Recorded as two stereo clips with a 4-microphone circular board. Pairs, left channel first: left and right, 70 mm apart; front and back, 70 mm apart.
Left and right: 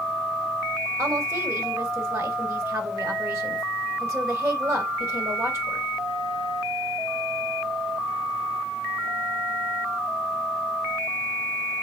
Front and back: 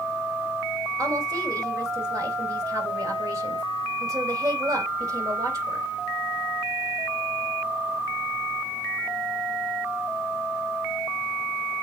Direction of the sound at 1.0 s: 135° right.